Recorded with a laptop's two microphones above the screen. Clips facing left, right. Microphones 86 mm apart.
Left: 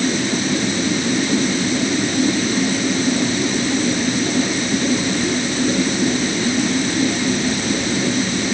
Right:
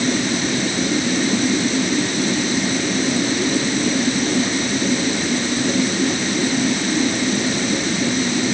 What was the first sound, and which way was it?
Only background noise.